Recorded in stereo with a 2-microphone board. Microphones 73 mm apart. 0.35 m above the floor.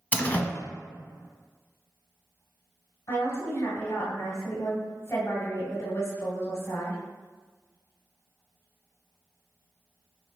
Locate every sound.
0.1 s a door slam: 20° left (ahead or behind), 0.7 m
3.1 s a woman speaking: 35° left (ahead or behind), 1.7 m